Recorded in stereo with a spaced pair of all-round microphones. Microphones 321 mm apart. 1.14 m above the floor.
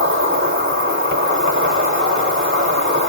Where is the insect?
40° right (ahead or behind), 1.4 m.